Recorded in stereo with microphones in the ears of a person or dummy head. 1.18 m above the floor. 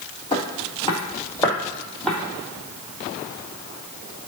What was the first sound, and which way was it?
Footsteps, 30° left (ahead or behind).